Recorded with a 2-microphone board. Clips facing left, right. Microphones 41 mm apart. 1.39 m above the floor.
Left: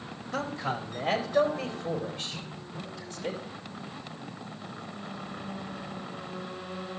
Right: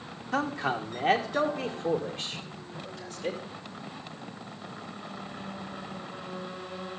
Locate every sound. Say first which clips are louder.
0.3 s a man speaking: right 3 dB; 75° right (ahead or behind), 1.1 m; by 3.4 s 80° right, 3 m